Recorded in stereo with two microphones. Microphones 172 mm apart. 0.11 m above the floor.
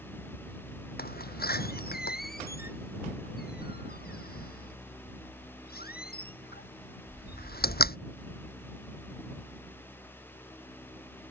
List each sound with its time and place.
1.0 s a door slam: 65° left (ahead or behind)